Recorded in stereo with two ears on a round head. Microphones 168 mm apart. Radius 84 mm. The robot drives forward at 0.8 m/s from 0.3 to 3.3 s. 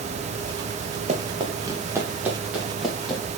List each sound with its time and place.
1.1 s running footsteps: 35° right (ahead or behind), 1.9 m; by 3.4 s 5° left (ahead or behind), 3.5 m